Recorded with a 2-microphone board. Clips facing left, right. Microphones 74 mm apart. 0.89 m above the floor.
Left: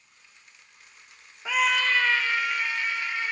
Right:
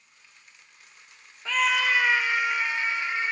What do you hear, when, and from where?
1.4 s a scream: 15° left (ahead or behind), 0.6 m; by 3.3 s 25° right (ahead or behind), 2.5 m